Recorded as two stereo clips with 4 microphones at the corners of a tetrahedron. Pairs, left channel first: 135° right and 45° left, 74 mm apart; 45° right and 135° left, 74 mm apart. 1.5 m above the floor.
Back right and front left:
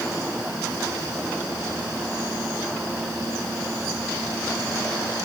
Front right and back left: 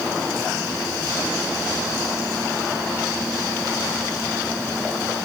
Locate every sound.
Only background noise.